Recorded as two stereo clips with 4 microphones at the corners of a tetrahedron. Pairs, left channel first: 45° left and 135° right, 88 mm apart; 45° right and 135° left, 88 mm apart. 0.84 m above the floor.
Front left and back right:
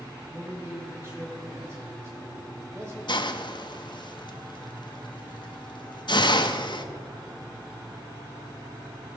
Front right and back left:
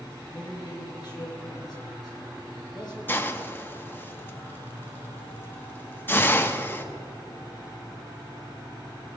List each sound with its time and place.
0.3 s a man speaking: 80° right, 4.5 m
3.1 s a hiss: 20° left, 0.6 m